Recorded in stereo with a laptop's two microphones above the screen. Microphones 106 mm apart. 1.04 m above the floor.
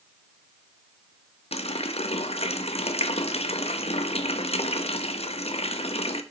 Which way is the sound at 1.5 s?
75° left (ahead or behind).